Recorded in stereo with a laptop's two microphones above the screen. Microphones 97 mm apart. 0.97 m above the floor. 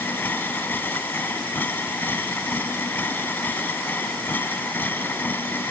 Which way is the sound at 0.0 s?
20° left (ahead or behind).